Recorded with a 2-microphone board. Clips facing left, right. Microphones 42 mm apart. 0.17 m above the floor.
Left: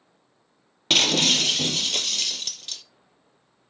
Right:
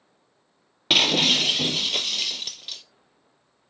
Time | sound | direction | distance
0.9 | breaking glass | 10° right (ahead or behind) | 0.6 m